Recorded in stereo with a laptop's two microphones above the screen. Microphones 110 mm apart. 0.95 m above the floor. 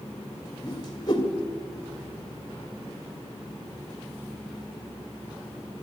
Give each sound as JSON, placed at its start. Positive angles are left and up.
{"t": 0.6, "sound": "a whoosh", "side_deg": 40, "distance_m": 1.9}